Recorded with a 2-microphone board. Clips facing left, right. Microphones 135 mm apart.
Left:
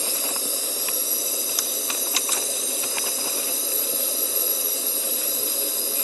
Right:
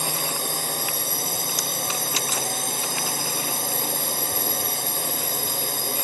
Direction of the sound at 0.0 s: 65° right (ahead or behind).